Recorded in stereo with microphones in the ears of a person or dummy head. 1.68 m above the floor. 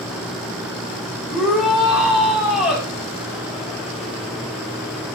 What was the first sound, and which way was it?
A shout, centre (ahead or behind).